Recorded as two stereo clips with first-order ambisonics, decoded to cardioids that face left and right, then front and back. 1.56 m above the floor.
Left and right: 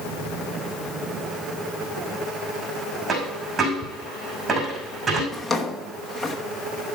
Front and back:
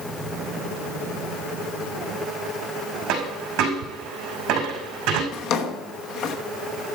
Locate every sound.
3.1 s a dropped coin: 150° right, 5 m
5.3 s a drawer: 5° left, 1.1 m